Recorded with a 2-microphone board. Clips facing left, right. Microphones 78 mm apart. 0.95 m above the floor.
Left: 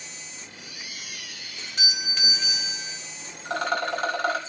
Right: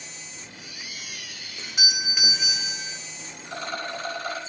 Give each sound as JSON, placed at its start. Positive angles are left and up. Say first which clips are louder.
{"t": 1.6, "sound": "a doorbell", "louder": "right 2 dB", "side_deg": -10, "distance_m": 1.6}
{"t": 3.5, "sound": "a rattle", "louder": "left 6 dB", "side_deg": 80, "distance_m": 3.5}